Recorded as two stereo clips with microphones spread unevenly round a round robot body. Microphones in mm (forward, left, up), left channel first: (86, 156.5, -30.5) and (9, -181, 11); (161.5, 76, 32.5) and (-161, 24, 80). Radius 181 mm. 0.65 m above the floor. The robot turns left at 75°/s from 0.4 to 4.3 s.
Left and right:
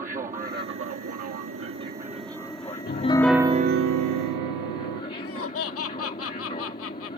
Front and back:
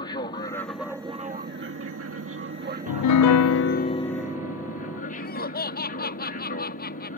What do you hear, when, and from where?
0.0 s an aircraft: 40° right; by 7.2 s 25° left
2.9 s a piano: 25° left; by 5.0 s 85° right
5.1 s laughter: 55° left